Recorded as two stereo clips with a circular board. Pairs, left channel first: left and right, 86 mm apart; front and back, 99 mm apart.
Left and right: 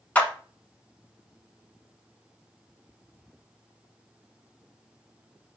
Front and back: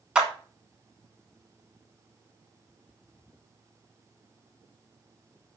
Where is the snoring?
I don't hear snoring.